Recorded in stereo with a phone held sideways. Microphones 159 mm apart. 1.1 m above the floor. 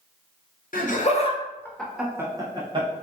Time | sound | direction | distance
0.7 | laughter | 60° left (ahead or behind) | 0.7 m